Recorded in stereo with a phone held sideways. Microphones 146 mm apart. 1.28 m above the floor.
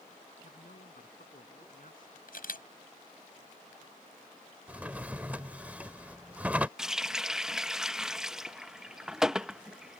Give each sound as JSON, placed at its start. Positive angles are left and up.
{"t": 0.4, "sound": "a man speaking", "side_deg": 70}
{"t": 2.3, "sound": "a camera shutter", "side_deg": 75}
{"t": 4.7, "sound": "a drawer", "side_deg": -10}
{"t": 6.8, "sound": "a running tap", "side_deg": -5}